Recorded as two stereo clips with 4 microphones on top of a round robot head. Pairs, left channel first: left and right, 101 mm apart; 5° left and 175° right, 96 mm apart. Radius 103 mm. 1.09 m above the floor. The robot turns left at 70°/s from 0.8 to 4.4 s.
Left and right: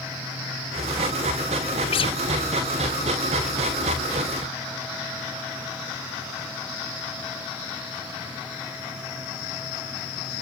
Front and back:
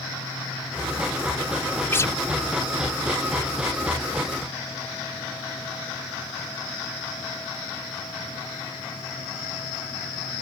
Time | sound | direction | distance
1.9 | a guitar | 70° left | ?